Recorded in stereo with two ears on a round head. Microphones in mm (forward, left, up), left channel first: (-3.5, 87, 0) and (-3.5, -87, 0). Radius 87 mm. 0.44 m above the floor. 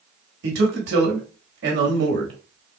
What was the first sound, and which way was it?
A man speaking, 60° right (ahead or behind).